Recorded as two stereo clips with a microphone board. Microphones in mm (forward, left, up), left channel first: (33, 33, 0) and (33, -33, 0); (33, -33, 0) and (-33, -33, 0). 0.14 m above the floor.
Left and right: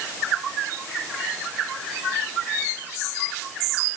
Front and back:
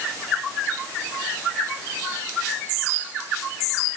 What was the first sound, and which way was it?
Only background noise.